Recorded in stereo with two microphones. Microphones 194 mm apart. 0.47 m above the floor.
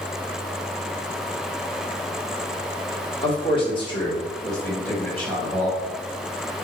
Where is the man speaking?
25° left (ahead or behind), 1.1 m; by 5.8 s 10° left (ahead or behind), 2.5 m.